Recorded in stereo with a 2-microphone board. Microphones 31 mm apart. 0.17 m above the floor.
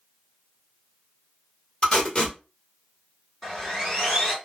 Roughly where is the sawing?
Centre.